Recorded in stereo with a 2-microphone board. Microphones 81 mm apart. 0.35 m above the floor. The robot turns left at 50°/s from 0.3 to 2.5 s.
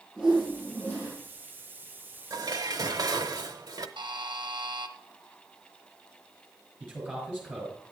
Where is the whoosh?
170° right, 6.5 m; by 1.1 s 150° left, 6.5 m.